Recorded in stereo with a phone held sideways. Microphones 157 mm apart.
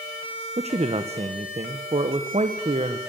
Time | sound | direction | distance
0.6 | a man speaking | 40° right (ahead or behind) | 1.0 m